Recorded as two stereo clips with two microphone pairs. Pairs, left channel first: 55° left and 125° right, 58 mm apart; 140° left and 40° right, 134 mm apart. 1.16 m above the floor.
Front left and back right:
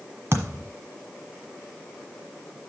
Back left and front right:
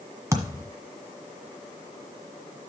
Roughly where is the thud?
Right.